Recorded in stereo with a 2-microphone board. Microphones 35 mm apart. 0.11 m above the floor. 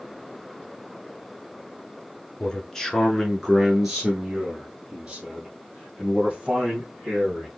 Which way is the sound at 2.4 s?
25° left (ahead or behind).